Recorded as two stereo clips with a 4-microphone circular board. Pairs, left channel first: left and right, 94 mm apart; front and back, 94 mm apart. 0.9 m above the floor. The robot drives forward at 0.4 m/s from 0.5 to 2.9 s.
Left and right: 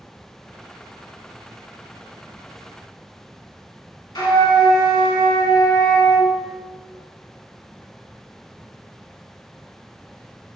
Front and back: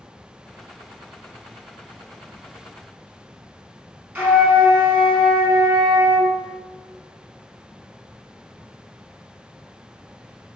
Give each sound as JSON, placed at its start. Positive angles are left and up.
{"t": 4.2, "sound": "a flute", "azimuth_deg": 120, "distance_m": 0.9}